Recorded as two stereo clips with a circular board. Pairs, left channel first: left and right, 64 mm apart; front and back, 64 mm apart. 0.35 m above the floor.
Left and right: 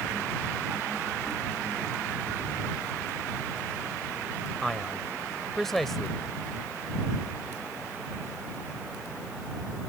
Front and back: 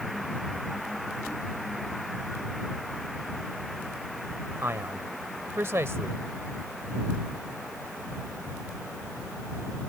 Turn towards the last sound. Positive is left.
turn(degrees=175)